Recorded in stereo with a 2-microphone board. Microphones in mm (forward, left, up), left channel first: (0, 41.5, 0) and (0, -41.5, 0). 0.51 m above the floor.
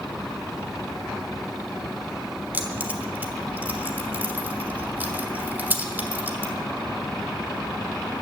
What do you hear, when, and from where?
2.5 s keys jangling: 25° right (ahead or behind), 1.3 m